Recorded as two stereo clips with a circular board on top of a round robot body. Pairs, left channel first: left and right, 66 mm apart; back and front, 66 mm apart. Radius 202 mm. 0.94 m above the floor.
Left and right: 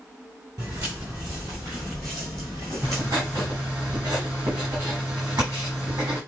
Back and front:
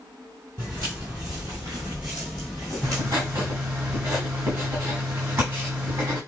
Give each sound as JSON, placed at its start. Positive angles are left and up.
{"t": 0.6, "sound": "footsteps", "azimuth_deg": -45, "distance_m": 1.3}
{"t": 2.8, "sound": "writing", "azimuth_deg": -50, "distance_m": 1.1}